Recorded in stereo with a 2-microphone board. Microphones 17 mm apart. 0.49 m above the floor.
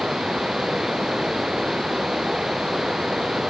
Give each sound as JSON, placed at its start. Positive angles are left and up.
{"t": 0.0, "sound": "running water", "side_deg": -45}